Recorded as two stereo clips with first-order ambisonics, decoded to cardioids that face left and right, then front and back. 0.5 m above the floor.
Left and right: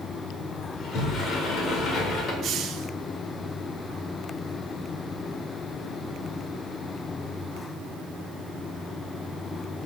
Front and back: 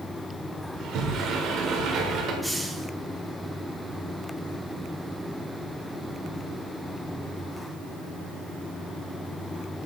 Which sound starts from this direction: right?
A hiss, at 2.4 s.